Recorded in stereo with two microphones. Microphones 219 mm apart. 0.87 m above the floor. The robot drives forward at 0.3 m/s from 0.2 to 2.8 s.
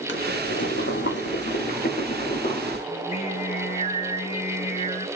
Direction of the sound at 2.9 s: 30° left (ahead or behind).